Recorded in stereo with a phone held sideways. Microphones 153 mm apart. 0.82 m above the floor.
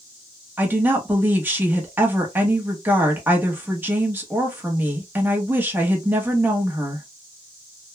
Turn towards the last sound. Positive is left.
turn(degrees=-10)  # may be behind; listen again after turning